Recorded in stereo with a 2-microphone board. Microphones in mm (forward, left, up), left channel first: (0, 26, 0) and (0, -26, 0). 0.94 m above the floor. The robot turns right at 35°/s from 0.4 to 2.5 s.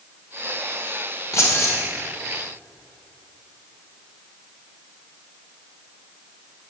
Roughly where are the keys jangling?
Left.